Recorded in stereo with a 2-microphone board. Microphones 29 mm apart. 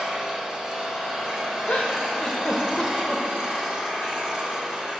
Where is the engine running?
20° right (ahead or behind), 1.9 m.